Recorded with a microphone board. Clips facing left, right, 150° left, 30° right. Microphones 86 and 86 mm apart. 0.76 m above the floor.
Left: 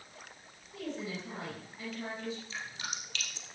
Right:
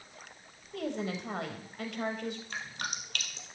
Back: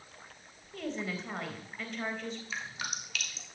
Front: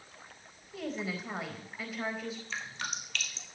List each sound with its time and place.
0.7 s a woman speaking: 115° right, 4 m
2.5 s dripping: 125° right, 3.5 m